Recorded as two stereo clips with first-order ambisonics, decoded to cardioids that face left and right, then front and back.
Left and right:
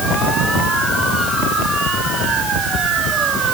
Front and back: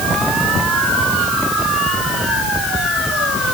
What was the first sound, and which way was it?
Only background noise.